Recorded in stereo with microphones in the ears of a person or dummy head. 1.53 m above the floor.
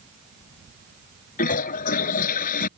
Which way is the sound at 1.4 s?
50° left (ahead or behind).